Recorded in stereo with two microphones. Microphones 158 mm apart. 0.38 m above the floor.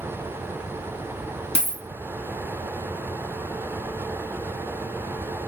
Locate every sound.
1.6 s a dropped coin: 80° left, 0.8 m